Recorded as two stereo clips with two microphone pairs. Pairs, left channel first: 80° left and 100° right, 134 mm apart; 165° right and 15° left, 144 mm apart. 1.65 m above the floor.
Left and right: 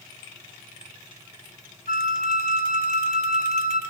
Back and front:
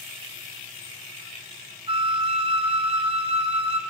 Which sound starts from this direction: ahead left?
A flute, at 1.9 s.